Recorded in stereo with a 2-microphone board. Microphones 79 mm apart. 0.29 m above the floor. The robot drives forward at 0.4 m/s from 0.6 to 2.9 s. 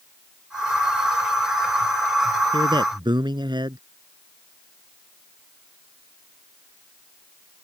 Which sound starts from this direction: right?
A man speaking, at 2.5 s.